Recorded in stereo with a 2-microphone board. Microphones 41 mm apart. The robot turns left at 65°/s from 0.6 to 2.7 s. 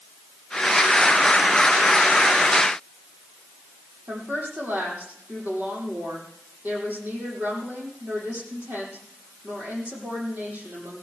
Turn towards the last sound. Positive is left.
turn(degrees=-55)  # may be behind; listen again after turning